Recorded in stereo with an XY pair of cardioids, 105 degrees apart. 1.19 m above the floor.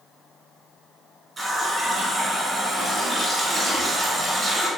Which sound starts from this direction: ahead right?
A running tap, at 1.4 s.